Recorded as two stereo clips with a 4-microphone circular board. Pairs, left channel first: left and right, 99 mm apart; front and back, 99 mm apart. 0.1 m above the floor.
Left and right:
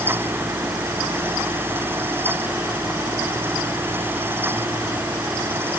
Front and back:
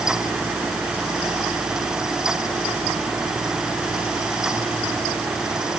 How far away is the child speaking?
No child speaking in this recording.